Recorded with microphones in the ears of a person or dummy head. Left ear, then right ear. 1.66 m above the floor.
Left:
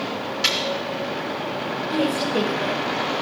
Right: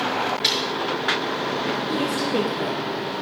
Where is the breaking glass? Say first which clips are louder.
Left 2 dB; 70° left (ahead or behind), 5.5 m.